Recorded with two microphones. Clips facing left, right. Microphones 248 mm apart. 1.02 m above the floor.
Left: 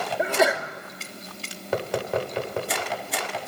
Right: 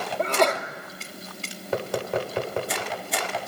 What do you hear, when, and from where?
0.2 s a sneeze: 5° left (ahead or behind), 2.5 m